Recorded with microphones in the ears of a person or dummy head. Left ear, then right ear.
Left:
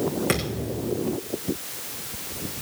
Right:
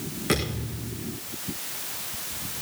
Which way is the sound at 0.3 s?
30° left (ahead or behind).